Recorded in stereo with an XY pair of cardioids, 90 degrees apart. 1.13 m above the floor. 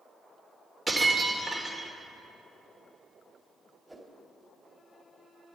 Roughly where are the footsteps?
No footsteps in this recording.